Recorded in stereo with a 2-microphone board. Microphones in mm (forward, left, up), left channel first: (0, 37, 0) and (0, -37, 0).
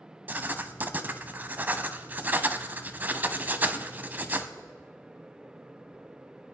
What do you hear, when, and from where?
0.3 s writing: 25° right (ahead or behind), 0.6 m